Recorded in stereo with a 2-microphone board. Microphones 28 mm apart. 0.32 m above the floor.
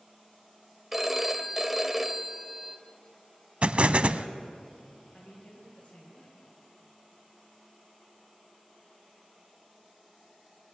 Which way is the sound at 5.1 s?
50° left (ahead or behind).